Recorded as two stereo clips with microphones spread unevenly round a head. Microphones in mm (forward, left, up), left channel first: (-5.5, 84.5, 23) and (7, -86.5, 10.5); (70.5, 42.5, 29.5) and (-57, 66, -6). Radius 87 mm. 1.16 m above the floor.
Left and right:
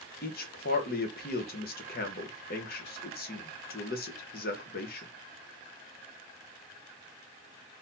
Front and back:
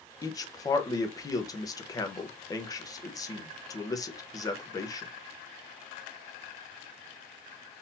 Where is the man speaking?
55° left, 1.0 m.